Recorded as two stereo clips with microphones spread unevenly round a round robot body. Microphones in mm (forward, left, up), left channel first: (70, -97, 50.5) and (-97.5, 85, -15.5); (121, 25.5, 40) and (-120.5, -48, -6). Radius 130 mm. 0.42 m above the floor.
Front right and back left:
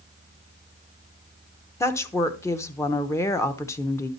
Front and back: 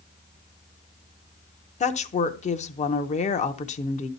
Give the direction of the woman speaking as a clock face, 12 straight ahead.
10 o'clock.